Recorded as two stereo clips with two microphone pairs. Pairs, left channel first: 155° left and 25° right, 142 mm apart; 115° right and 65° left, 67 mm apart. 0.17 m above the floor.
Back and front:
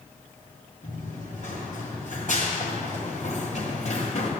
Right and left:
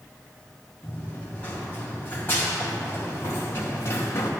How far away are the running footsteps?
About 4 m.